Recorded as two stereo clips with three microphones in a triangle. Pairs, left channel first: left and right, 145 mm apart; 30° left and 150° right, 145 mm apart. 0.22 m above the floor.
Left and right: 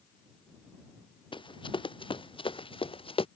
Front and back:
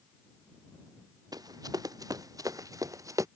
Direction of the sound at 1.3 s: 145° left.